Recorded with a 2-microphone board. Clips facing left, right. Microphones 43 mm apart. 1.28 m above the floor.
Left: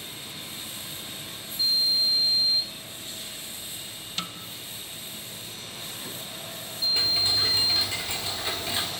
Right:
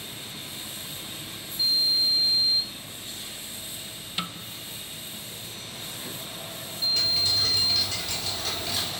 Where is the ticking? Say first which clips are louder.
Left 1 dB; 25° left (ahead or behind), 4 m.